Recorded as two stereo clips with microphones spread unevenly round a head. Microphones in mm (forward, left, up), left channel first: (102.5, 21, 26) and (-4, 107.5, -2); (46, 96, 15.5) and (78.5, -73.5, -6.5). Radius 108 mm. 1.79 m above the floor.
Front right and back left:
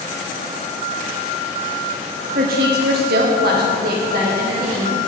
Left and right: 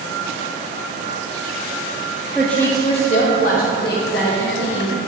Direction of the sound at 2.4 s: 170° right.